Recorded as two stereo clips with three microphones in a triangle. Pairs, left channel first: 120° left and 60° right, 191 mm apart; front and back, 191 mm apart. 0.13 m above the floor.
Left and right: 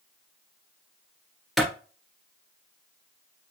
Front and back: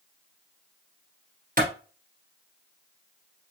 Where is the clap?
150° right, 1.8 m.